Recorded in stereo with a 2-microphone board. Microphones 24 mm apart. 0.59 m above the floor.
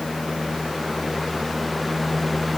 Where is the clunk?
No clunk in this recording.